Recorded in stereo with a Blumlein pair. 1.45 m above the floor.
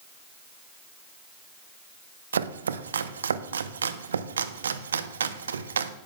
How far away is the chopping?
About 0.6 m.